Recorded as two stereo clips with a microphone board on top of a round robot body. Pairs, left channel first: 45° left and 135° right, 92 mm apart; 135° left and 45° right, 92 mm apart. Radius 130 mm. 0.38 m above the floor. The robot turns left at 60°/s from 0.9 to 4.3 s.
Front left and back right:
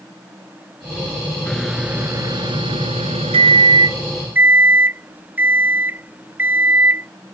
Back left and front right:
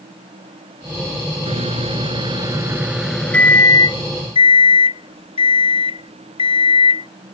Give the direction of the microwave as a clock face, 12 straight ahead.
1 o'clock.